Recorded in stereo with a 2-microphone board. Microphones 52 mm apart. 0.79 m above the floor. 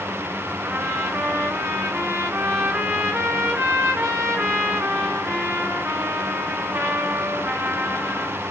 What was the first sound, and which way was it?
A trumpet, 60° right (ahead or behind).